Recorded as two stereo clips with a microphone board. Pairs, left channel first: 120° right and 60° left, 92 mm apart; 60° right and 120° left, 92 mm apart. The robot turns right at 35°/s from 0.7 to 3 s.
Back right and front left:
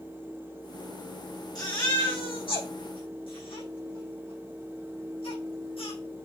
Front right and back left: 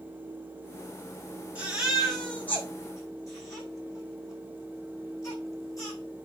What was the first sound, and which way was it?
A baby crying, 165° right.